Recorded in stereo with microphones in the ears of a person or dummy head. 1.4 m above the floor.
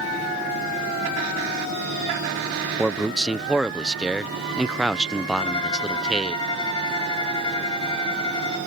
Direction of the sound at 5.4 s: 30° left (ahead or behind).